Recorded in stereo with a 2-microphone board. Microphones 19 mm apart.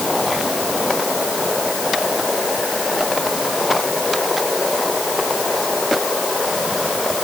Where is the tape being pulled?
No tape being pulled in this recording.